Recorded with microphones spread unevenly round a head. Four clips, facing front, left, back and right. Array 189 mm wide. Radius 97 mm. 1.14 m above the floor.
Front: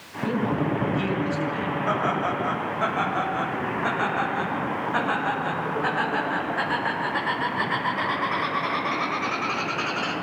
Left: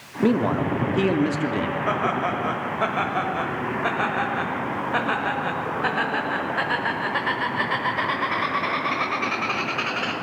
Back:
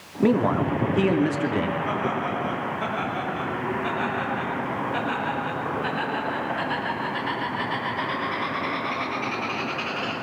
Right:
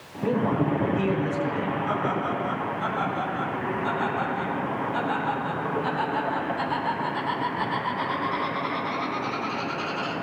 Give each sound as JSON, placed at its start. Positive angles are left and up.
{"t": 0.2, "sound": "a man speaking", "azimuth_deg": 135, "distance_m": 3.0}
{"t": 1.9, "sound": "laughter", "azimuth_deg": 70, "distance_m": 6.0}